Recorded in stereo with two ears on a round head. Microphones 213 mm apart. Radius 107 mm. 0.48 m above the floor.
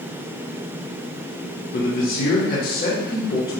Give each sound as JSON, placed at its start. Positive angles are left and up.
{"t": 1.7, "sound": "a man speaking", "side_deg": 40, "distance_m": 1.0}